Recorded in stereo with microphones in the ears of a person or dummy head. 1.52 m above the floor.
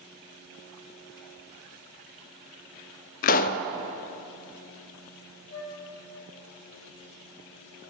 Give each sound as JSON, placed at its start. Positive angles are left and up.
{"t": 3.2, "sound": "a pop", "side_deg": 55, "distance_m": 0.6}
{"t": 5.5, "sound": "a flute", "side_deg": 25, "distance_m": 1.6}